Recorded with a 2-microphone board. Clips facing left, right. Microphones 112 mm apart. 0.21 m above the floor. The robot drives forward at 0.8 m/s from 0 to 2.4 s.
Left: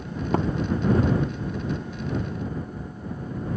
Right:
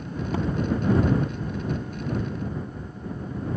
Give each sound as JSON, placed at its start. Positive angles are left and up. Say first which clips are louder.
{"t": 0.3, "sound": "tapping", "louder": "left 4 dB", "side_deg": 55}